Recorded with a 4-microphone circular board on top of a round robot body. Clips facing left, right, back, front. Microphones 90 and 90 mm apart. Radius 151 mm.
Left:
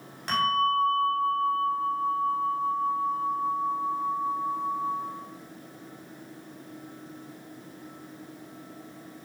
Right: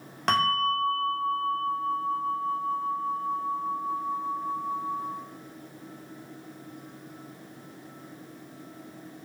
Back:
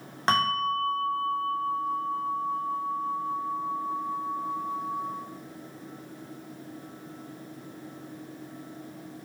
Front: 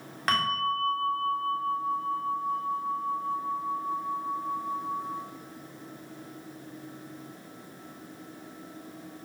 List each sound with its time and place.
0.3 s a bell: 115° right, 3.5 m